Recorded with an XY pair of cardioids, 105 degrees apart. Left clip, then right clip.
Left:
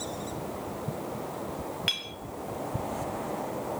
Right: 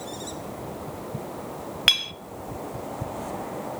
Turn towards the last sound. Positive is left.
turn(degrees=-65)